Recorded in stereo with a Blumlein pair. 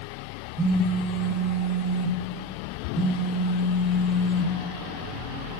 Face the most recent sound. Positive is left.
turn(degrees=-10)